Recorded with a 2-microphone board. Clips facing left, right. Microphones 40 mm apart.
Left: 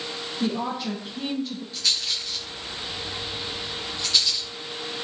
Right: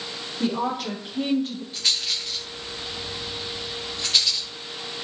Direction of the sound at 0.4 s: 55° right (ahead or behind).